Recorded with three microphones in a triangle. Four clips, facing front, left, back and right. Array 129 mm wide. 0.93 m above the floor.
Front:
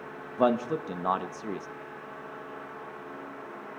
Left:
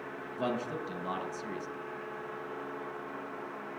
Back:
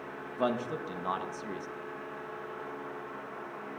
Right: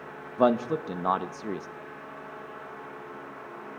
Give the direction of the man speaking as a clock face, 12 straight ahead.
2 o'clock.